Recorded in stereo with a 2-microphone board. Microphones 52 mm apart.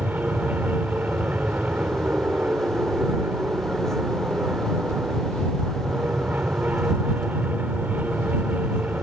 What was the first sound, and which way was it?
An aircraft, 30° right (ahead or behind).